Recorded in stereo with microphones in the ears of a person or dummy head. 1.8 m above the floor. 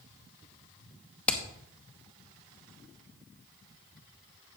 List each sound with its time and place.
1.3 s hammering: 10° left (ahead or behind), 1.0 m